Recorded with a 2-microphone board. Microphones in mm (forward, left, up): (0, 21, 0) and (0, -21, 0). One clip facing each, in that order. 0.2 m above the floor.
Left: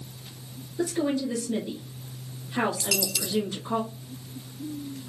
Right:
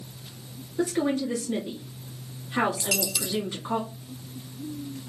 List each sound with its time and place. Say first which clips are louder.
0.8 s a woman speaking: right 1 dB; 40° right (ahead or behind), 1.7 m
2.8 s a dropped coin: even; 15° right (ahead or behind), 0.5 m